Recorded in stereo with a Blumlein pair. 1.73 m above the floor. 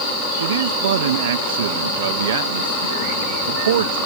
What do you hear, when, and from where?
0.4 s a man speaking: 60° right